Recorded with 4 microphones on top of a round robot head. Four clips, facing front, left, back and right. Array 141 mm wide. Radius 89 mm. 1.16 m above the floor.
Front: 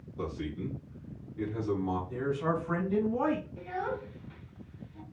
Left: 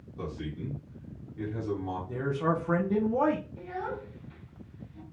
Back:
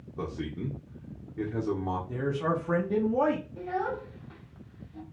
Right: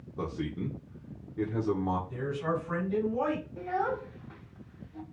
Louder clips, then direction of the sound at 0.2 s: Right 3 dB, back 1 dB; 135° right.